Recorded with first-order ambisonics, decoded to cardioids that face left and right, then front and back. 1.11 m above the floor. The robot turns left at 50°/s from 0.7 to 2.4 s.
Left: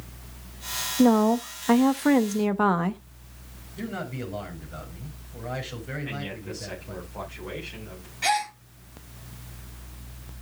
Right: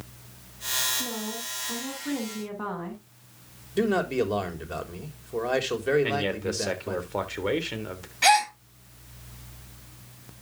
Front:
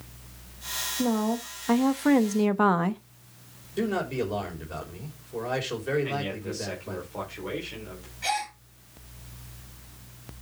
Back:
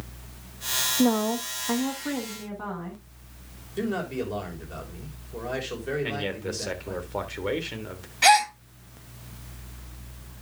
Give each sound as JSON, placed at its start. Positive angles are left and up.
{"t": 1.0, "sound": "a woman speaking", "azimuth_deg": 110, "distance_m": 1.1}
{"t": 3.8, "sound": "a man speaking", "azimuth_deg": -85, "distance_m": 4.0}
{"t": 6.0, "sound": "a man speaking", "azimuth_deg": -115, "distance_m": 3.5}
{"t": 8.2, "sound": "a gasp", "azimuth_deg": -150, "distance_m": 1.8}